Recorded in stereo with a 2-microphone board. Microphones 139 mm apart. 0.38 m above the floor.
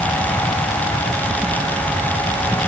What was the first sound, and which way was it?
Only background noise.